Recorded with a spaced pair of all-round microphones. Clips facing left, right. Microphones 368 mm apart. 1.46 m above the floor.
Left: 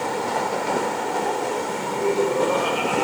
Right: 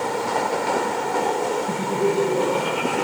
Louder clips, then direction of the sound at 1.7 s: Right 2 dB; 55° right (ahead or behind).